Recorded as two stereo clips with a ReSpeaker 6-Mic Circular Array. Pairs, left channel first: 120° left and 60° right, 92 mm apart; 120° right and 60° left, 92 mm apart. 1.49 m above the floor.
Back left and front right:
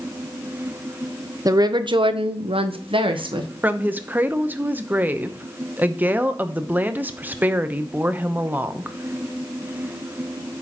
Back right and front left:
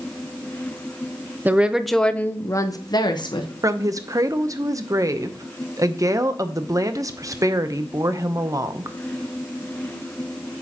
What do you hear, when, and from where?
1.4 s a woman speaking: 10° right, 0.8 m; by 3.5 s 90° right, 1.2 m
3.6 s a woman speaking: 10° left, 0.7 m